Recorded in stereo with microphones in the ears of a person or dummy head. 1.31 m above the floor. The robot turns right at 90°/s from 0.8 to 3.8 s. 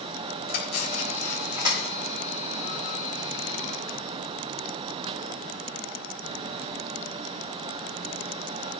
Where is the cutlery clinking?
50° left (ahead or behind), 4 m; by 2.1 s 70° right (ahead or behind), 4 m.